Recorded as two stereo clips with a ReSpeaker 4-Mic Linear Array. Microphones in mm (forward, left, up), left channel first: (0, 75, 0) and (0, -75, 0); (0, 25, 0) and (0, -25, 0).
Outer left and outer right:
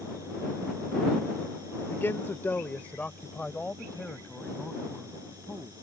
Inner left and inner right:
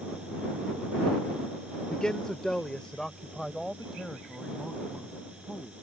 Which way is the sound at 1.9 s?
15° left (ahead or behind).